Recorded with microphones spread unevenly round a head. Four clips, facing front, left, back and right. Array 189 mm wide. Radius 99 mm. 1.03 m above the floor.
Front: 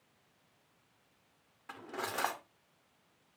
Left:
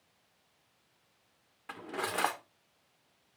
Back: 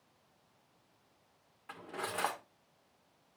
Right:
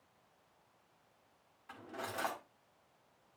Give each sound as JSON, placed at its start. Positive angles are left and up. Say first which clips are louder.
{"t": 1.7, "sound": "cutlery clinking", "louder": "left 7 dB, front 1 dB", "azimuth_deg": 70, "distance_m": 1.9}